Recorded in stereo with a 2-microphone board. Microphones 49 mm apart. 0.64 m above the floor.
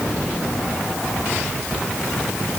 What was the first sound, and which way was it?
Only background noise.